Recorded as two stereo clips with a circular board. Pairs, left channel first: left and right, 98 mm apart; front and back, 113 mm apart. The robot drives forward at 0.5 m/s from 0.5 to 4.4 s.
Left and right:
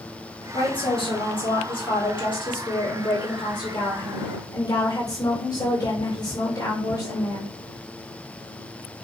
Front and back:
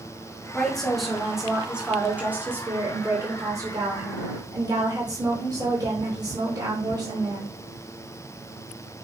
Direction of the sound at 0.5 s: 80° left.